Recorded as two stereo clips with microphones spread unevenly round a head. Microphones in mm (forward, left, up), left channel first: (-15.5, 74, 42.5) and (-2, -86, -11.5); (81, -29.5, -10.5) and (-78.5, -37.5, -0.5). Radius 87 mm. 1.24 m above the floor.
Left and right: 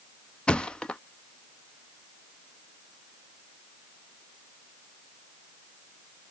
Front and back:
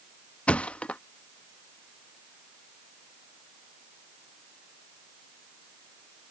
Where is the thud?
85° left.